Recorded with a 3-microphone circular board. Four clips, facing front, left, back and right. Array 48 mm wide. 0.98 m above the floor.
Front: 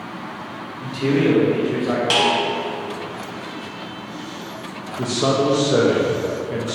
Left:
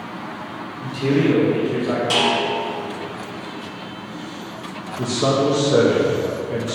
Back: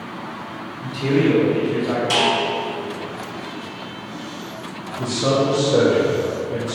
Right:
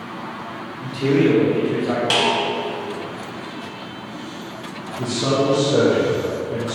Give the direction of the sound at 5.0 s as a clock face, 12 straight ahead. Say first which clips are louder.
Left 1 dB, even; 11 o'clock.